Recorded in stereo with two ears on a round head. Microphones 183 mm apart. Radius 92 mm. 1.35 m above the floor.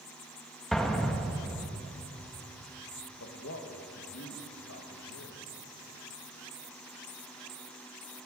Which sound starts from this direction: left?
A man speaking, at 3.2 s.